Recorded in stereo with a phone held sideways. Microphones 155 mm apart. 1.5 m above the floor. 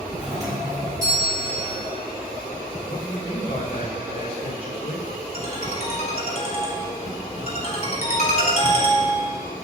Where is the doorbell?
25° right (ahead or behind), 5 m.